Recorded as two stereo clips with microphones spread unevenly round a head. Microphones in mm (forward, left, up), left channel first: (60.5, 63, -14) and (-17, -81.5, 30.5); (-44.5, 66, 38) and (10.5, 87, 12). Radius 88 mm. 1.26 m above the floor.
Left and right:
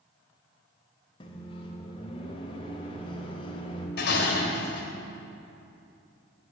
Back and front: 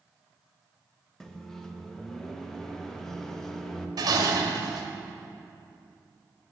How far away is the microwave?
About 0.9 m.